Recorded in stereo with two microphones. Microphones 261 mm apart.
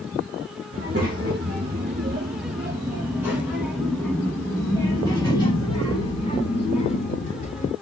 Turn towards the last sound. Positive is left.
turn(degrees=30)  # may be behind; listen again after turning